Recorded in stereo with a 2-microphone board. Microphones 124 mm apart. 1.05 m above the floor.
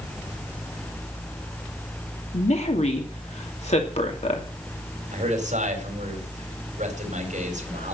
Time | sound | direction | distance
2.3 | a woman speaking | 60° left (ahead or behind) | 2.5 m
5.1 | a man speaking | 80° right | 4.5 m